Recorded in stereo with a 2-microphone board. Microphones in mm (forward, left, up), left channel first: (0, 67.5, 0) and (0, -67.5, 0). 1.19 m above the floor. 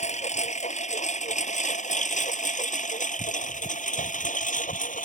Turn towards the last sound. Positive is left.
turn(degrees=75)  # may be behind; listen again after turning